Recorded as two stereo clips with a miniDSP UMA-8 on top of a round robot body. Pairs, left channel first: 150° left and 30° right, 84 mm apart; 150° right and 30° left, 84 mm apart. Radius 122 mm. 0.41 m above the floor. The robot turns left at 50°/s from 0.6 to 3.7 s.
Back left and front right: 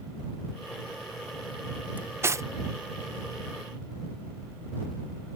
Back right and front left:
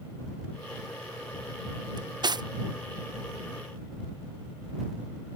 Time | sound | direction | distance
2.0 | cutlery clinking | 35° left | ?